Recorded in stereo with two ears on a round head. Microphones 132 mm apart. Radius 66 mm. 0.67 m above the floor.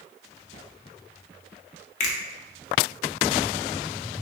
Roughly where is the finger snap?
Left.